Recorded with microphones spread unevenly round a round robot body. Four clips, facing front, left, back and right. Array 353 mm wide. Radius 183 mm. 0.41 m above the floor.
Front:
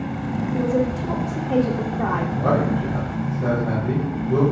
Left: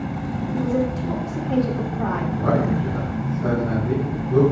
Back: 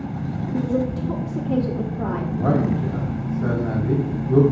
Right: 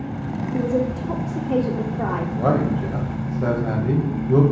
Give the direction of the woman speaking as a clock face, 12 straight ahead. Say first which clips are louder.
Right 1 dB, front 1 dB; 4 o'clock.